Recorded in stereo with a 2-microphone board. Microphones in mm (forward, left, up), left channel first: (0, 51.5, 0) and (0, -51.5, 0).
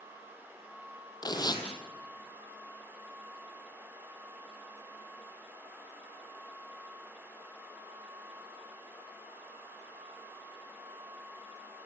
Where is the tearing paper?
45° left (ahead or behind), 3.5 m.